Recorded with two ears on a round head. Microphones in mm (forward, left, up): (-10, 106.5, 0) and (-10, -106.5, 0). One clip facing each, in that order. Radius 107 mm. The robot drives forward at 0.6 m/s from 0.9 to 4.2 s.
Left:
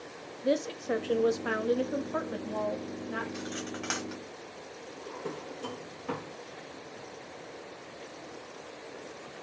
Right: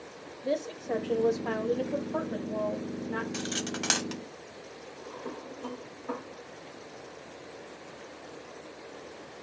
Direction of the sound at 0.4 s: 15° left (ahead or behind).